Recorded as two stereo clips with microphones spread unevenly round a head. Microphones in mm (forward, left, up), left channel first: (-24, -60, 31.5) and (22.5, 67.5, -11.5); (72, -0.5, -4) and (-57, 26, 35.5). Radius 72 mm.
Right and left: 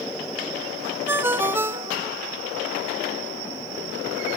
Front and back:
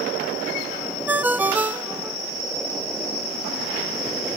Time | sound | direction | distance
1.1 | a ringtone | 165° left | 0.6 m